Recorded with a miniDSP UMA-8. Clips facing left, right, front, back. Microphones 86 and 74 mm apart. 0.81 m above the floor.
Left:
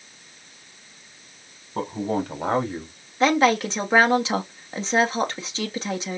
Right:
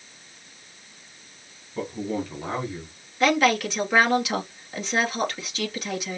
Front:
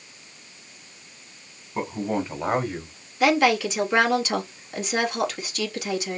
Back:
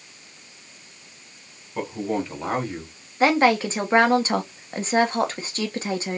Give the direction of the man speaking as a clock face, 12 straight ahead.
10 o'clock.